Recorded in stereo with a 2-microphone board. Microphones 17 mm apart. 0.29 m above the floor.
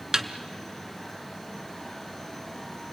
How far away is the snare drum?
About 1.2 m.